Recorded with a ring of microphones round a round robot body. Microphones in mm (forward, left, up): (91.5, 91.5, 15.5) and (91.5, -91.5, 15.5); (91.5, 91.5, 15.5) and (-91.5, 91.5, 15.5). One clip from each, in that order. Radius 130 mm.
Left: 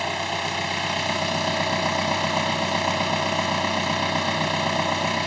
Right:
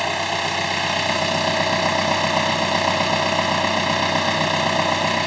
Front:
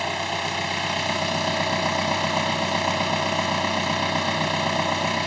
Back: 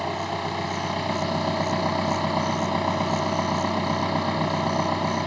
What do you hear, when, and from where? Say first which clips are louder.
0.0 s an engine running: right 4 dB, front 2 dB; 40° right